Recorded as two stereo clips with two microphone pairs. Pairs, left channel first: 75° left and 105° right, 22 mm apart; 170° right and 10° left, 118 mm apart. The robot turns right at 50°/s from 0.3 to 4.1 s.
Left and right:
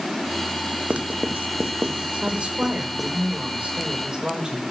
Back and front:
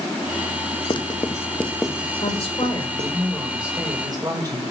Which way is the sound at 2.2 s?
140° right.